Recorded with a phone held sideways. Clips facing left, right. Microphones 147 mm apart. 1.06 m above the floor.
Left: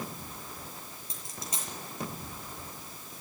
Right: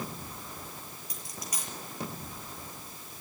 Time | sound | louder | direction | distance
1.1 | a dropped coin | left 1 dB | 25° left (ahead or behind) | 7 m